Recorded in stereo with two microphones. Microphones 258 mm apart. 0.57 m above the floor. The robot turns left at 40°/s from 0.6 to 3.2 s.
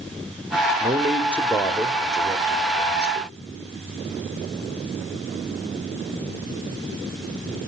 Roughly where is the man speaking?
Behind.